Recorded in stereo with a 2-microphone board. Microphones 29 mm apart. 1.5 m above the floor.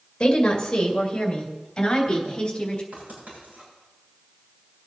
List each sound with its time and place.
0.2 s a woman speaking: 25° left (ahead or behind), 2 m
2.9 s writing: 60° right (ahead or behind), 7 m